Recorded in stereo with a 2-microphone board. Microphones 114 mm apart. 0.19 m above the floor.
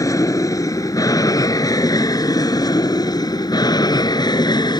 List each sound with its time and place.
0.0 s an aircraft: 30° left (ahead or behind); by 4.8 s 40° left (ahead or behind)